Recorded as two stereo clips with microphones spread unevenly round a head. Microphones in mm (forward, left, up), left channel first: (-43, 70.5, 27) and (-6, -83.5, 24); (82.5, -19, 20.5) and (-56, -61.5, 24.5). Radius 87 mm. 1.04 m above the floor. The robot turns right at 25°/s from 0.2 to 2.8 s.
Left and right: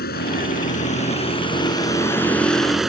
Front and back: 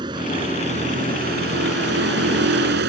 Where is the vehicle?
130° left; by 2.9 s 165° right.